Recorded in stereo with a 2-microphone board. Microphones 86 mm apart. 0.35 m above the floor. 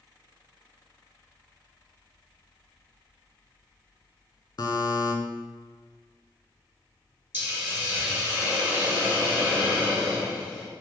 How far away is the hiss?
About 1.4 m.